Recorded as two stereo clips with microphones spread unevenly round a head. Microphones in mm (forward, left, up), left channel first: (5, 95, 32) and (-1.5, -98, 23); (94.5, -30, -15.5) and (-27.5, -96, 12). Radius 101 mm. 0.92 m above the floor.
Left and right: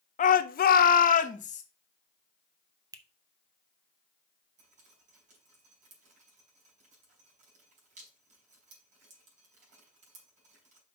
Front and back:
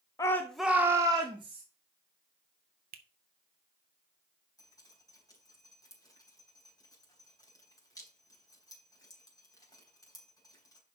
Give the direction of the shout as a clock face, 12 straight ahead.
10 o'clock.